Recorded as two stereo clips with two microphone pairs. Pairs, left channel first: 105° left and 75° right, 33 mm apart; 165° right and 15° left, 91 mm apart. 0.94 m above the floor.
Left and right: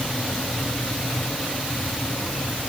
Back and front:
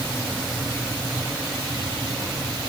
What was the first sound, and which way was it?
Only background noise.